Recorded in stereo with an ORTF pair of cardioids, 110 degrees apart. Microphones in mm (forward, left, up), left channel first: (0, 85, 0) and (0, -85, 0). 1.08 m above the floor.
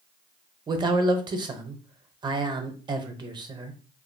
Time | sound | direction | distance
0.7 | a man speaking | 25° right | 0.6 m